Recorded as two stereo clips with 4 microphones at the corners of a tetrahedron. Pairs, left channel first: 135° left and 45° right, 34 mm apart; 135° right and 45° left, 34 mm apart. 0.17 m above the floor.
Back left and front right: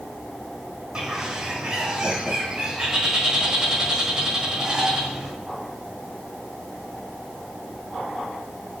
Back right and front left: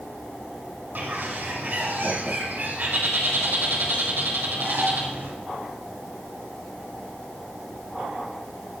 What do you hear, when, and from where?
0.9 s a bird: 25° left, 1.3 m